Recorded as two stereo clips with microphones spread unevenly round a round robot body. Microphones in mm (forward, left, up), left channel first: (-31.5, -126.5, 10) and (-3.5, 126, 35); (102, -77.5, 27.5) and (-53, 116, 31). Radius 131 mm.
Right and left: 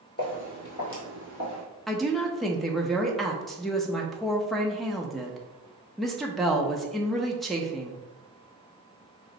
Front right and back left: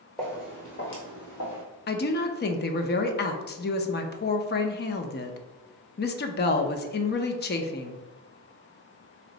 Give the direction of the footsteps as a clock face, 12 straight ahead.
5 o'clock.